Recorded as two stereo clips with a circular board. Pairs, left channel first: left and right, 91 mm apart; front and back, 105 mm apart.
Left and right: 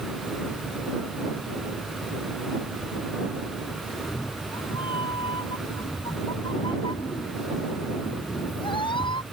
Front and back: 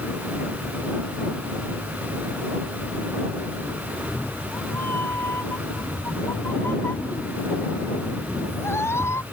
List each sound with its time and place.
3.9 s a cat meowing: 70° left; by 9.2 s 65° left